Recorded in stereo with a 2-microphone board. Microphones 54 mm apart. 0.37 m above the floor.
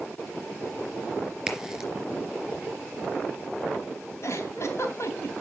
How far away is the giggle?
About 3 m.